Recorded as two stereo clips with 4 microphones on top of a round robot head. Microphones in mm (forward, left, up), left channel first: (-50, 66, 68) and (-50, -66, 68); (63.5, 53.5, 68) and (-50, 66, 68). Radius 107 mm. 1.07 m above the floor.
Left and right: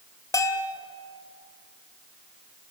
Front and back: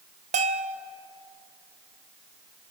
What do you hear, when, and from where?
0.3 s a bell: 155° left, 1.7 m